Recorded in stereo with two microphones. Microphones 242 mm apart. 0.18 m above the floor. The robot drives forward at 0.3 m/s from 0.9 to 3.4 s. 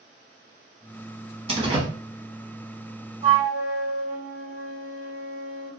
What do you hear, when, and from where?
1.5 s a door slam: 25° right (ahead or behind), 0.8 m
3.2 s a flute: 35° right (ahead or behind), 1.4 m